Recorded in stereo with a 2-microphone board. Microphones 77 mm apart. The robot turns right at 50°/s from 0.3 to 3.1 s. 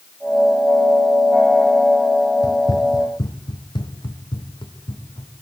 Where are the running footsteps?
55° left (ahead or behind), 0.9 m; by 5.4 s 80° left, 4 m.